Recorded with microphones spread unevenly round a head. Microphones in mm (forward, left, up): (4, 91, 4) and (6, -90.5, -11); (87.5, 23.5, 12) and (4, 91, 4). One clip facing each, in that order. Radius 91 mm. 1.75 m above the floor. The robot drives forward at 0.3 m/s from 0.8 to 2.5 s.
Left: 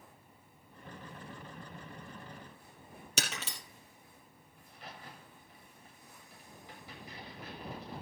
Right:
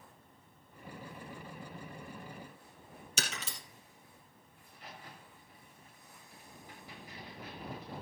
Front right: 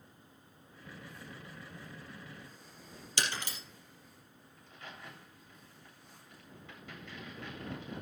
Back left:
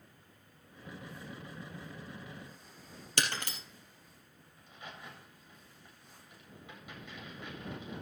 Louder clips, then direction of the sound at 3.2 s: Left 2 dB, back left 1 dB; 110° left.